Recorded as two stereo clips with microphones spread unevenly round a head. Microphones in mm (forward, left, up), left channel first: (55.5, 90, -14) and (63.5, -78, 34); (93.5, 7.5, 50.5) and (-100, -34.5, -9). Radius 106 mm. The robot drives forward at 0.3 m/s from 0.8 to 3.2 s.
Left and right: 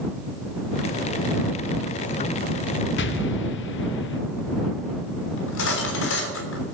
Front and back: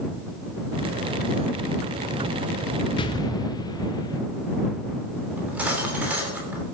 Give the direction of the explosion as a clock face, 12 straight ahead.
9 o'clock.